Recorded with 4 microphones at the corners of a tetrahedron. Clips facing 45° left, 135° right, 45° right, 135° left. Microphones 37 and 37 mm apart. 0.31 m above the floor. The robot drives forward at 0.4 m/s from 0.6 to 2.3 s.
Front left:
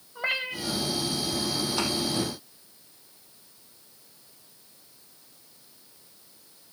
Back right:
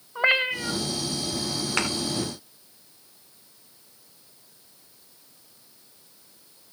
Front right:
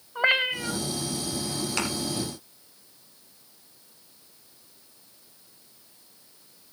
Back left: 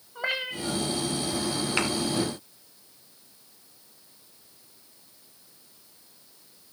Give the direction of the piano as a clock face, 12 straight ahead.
I don't hear a piano.